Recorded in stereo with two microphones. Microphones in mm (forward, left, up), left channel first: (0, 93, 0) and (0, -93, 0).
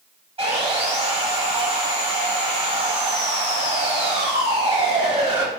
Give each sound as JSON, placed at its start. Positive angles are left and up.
{"t": 0.4, "sound": "sawing", "side_deg": -35, "distance_m": 0.9}